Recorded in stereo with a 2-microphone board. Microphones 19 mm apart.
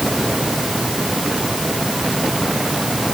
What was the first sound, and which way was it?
Only background noise.